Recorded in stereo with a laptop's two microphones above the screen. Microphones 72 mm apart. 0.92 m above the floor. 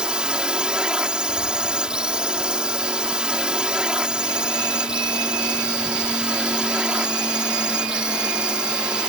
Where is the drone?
15° right (ahead or behind).